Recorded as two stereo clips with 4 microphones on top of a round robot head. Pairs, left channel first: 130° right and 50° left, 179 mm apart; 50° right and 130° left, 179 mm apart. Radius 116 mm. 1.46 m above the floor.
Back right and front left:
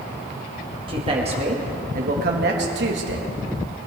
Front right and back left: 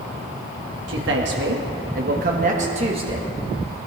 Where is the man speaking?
110° left, 2.5 m; by 3.3 s 65° left, 2 m.